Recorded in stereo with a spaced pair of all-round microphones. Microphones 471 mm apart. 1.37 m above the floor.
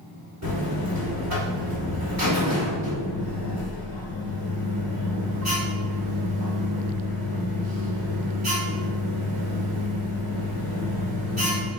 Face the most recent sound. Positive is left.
turn(degrees=-35)  # may be behind; listen again after turning